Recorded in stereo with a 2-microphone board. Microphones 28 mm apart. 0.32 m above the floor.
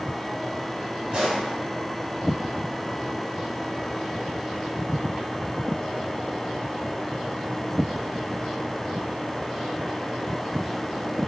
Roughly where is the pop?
Right.